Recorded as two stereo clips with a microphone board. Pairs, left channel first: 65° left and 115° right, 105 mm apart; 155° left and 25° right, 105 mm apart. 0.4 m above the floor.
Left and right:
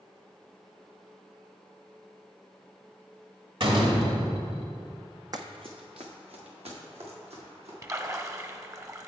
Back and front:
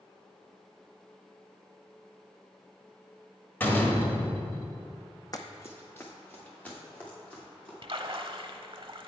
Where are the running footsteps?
155° right, 0.8 m; by 7.7 s 125° right, 4 m.